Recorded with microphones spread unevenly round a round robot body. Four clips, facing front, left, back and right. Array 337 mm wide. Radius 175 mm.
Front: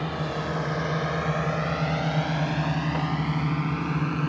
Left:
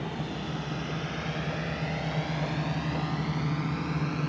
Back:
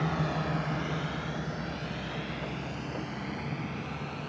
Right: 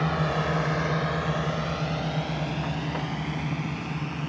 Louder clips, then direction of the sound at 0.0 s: Right 8 dB, front 2 dB; 105° right.